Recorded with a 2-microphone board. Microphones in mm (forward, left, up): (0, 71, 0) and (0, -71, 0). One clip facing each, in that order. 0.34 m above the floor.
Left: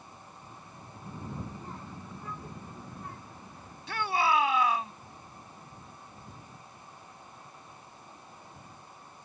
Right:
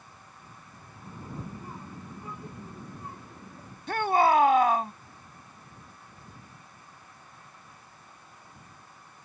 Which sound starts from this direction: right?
A shout, at 3.9 s.